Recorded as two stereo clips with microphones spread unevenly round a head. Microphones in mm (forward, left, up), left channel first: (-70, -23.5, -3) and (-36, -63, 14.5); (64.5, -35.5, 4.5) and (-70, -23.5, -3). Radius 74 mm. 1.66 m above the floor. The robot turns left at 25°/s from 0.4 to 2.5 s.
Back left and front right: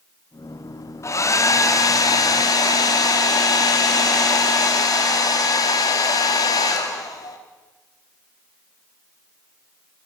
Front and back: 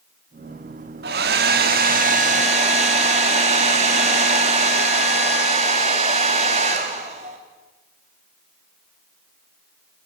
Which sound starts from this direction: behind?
A hair dryer, at 1.0 s.